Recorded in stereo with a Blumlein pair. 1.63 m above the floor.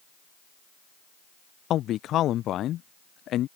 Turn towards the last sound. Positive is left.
turn(degrees=30)